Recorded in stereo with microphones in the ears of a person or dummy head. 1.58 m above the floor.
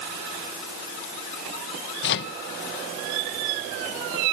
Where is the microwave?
60° left (ahead or behind).